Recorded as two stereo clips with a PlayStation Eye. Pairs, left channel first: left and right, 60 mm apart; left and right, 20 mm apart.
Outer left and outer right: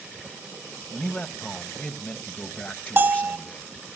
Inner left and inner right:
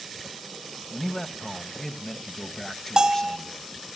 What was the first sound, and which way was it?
A man speaking, 25° left (ahead or behind).